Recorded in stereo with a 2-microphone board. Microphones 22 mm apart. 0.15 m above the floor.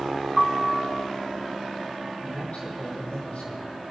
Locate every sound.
0.4 s a piano: centre (ahead or behind), 1.5 m
2.2 s a man speaking: 75° left (ahead or behind), 5.5 m